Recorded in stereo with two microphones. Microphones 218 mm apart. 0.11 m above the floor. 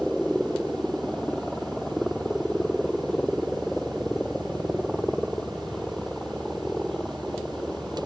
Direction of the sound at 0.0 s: Centre (ahead or behind).